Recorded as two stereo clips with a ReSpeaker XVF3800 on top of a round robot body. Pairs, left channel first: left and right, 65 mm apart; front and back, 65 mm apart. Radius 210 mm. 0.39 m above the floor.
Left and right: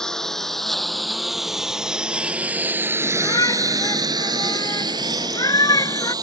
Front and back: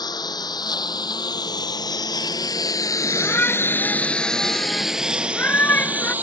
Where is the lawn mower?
10° left; by 6.2 s 115° right.